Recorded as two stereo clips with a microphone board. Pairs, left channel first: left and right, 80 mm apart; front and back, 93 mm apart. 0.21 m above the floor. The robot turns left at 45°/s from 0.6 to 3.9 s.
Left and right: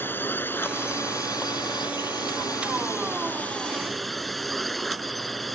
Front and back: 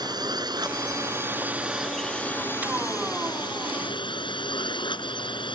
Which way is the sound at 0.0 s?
150° left.